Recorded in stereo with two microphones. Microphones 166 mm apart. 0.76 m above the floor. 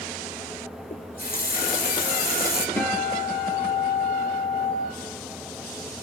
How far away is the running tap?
About 1.7 m.